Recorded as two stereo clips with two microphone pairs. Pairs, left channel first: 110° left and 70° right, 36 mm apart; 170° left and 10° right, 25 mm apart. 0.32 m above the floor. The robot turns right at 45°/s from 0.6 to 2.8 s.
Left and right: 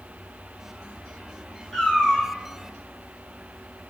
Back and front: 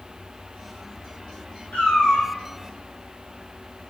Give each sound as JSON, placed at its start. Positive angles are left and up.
{"t": 1.7, "sound": "a cat meowing", "azimuth_deg": -175, "distance_m": 2.5}